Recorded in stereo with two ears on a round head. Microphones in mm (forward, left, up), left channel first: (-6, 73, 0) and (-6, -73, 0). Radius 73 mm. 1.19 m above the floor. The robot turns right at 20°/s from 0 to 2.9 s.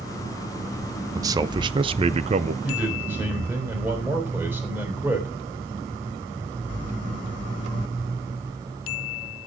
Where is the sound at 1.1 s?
20° right (ahead or behind), 0.7 m; by 2.5 s 45° right (ahead or behind), 0.7 m.